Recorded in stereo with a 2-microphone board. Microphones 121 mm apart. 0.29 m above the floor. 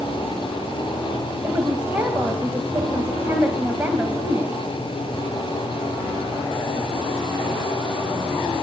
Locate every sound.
1.4 s a woman speaking: 15° right (ahead or behind), 1.9 m